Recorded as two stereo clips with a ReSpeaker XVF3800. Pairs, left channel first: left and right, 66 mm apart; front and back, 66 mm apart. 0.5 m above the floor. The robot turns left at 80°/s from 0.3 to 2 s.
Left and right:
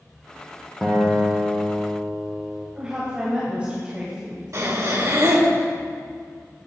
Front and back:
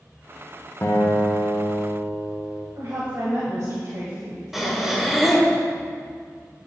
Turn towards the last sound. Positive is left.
turn(degrees=-95)